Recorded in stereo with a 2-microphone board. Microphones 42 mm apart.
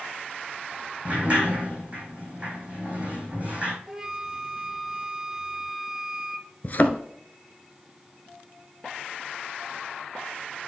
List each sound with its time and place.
1.1 s a sliding door: 30° right (ahead or behind), 3.5 m
3.9 s a flute: 15° right (ahead or behind), 0.7 m
6.6 s a thud: 45° left (ahead or behind), 0.7 m